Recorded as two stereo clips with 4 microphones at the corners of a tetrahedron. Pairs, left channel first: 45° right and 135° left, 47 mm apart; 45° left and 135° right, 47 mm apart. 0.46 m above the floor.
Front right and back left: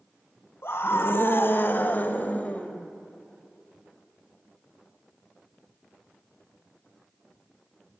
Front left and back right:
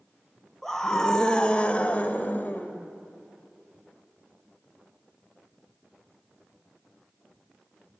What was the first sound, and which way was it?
A scream, 40° right.